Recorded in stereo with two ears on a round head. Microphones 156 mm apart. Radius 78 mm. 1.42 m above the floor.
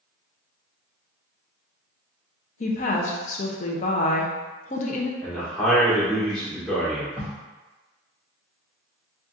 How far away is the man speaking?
About 1.6 m.